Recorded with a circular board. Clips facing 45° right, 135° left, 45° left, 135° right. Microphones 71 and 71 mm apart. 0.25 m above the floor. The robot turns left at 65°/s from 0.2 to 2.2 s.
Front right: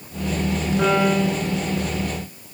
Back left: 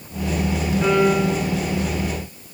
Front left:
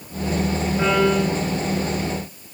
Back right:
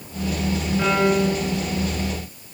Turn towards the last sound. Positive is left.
turn(degrees=-125)